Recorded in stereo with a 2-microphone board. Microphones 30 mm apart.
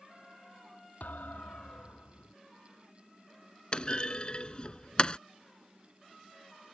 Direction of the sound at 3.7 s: 35° left (ahead or behind).